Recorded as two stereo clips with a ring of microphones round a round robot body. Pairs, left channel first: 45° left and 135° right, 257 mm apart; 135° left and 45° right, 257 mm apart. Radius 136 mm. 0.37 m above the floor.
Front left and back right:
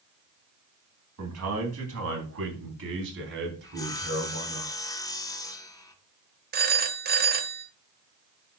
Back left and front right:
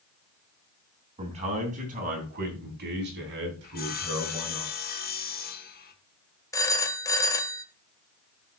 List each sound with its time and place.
1.2 s a man speaking: 110° right, 3.5 m; by 4.6 s 80° right, 4 m
3.6 s sawing: 115° left, 1.0 m
6.5 s a phone ringing: 155° right, 1.0 m